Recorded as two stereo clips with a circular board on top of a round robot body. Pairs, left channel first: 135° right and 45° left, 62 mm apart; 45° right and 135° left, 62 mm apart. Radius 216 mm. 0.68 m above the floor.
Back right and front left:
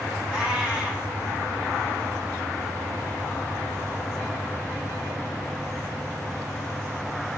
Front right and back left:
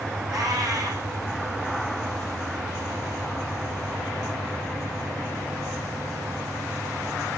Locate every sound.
0.3 s a cat meowing: 120° left, 4.5 m